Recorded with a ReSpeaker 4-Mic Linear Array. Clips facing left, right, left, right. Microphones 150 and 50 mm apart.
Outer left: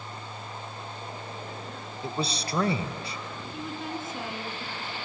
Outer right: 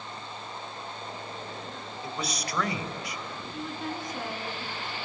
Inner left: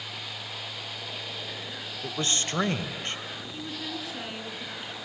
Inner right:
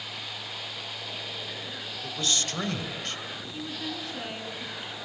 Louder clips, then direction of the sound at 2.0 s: Outer left 4 dB, inner left 1 dB; 30° left (ahead or behind).